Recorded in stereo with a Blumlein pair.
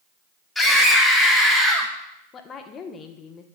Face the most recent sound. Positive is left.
turn(degrees=20)